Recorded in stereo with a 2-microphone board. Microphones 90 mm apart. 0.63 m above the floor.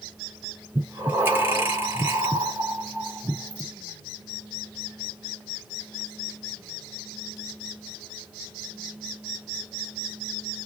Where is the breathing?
20° right (ahead or behind), 1.8 m.